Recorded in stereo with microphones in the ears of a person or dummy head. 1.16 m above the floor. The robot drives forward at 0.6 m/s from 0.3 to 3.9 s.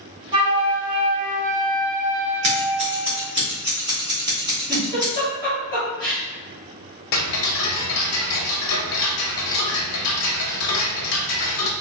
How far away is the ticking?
About 0.6 m.